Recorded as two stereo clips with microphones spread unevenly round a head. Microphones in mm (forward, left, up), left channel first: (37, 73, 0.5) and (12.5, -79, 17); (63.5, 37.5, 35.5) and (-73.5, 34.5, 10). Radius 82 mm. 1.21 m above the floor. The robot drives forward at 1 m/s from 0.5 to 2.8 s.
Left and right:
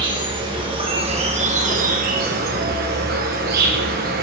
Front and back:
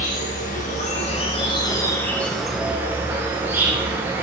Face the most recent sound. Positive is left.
turn(degrees=-110)